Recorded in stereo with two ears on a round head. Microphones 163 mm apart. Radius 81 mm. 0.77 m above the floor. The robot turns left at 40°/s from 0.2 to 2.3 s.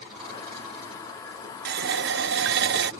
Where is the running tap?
60° right (ahead or behind); by 2.9 s 65° right (ahead or behind).